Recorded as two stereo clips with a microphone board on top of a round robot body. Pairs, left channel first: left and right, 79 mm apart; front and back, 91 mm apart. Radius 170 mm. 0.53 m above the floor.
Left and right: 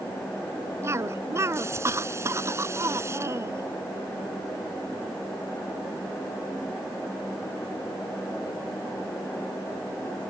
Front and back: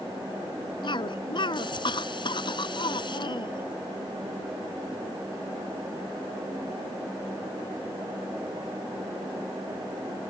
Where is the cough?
35° right.